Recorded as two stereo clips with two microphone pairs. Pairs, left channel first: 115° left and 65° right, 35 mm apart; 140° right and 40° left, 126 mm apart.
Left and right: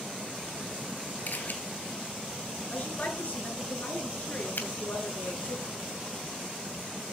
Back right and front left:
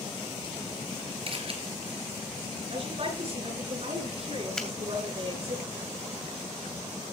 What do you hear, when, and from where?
1.3 s a camera shutter: 85° left, 3 m
2.7 s a woman speaking: 85° left, 7.5 m
4.6 s a finger snap: 140° left, 2.5 m